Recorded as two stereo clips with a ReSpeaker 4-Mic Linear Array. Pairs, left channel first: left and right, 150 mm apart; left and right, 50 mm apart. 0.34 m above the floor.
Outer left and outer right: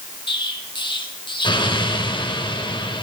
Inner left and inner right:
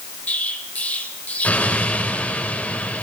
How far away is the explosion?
About 1.3 m.